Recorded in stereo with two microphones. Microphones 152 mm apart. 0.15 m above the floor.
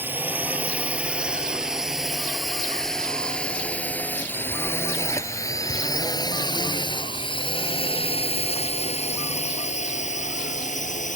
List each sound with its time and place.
0.0 s a drone: 15° right (ahead or behind); by 11.2 s 55° left (ahead or behind)